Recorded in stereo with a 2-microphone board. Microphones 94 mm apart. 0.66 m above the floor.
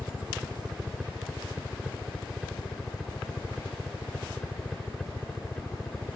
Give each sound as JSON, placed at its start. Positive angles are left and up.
{"t": 0.0, "sound": "a helicopter", "side_deg": -10}